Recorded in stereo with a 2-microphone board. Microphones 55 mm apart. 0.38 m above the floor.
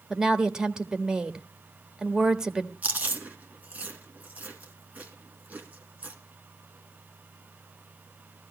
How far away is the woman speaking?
About 1.2 m.